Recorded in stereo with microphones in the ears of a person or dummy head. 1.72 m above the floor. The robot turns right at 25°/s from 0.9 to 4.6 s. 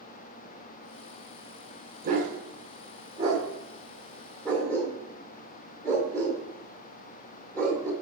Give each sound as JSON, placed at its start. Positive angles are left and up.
{"t": 2.0, "sound": "a dog barking", "side_deg": -45, "distance_m": 2.5}